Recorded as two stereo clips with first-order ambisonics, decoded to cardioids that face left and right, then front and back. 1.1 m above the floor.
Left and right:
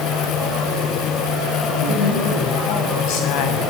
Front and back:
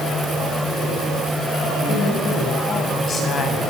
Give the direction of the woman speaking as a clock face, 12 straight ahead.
10 o'clock.